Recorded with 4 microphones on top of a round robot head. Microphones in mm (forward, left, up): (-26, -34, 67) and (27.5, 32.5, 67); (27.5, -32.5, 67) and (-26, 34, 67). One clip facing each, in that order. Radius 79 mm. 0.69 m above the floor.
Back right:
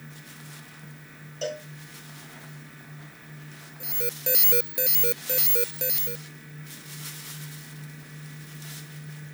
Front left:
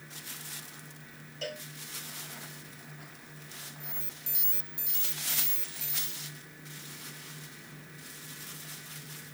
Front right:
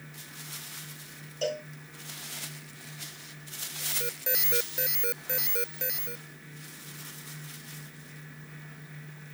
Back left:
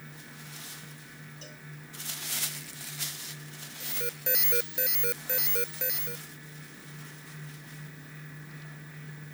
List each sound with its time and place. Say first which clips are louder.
1.4 s a cowbell: back right 8 dB, front right 17 dB; 65° right
3.8 s an alarm: back right 14 dB, even; 140° right